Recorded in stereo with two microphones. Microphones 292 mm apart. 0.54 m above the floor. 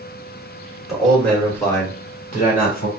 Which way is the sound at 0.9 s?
Centre (ahead or behind).